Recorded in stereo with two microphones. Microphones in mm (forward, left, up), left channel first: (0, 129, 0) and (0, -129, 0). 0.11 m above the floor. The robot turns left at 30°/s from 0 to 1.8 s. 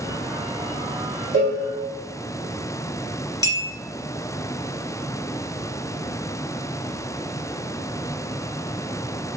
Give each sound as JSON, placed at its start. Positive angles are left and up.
{"t": 1.3, "sound": "a cowbell", "side_deg": -50, "distance_m": 1.3}
{"t": 3.4, "sound": "a clink", "side_deg": 15, "distance_m": 0.8}